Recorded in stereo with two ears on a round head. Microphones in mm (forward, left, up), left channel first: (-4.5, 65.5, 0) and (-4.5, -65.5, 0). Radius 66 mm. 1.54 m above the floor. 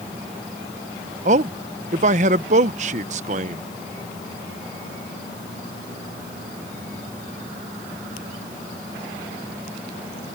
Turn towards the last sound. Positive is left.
turn(degrees=-50)  # may be behind; listen again after turning